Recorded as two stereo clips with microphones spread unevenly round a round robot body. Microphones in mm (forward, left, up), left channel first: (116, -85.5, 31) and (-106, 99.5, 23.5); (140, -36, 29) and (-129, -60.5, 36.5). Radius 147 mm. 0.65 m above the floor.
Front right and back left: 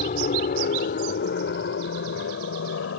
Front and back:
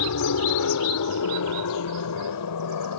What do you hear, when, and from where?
0.0 s an aircraft: 20° left; by 3.0 s 5° left